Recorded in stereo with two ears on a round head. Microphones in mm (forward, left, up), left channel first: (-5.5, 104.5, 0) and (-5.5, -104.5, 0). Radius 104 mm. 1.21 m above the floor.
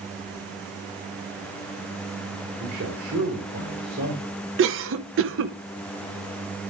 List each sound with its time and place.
2.6 s a man speaking: 65° right (ahead or behind), 3 m
4.6 s a cough: 55° right (ahead or behind), 1.0 m